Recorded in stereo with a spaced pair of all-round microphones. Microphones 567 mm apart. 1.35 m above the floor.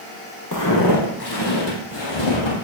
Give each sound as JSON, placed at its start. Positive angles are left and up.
{"t": 0.5, "sound": "footsteps", "side_deg": 30, "distance_m": 1.8}